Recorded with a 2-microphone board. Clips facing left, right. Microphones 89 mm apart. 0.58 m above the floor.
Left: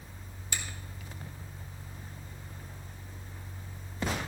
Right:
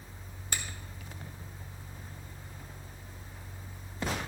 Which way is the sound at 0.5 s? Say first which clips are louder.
Right 1 dB; 55° right (ahead or behind).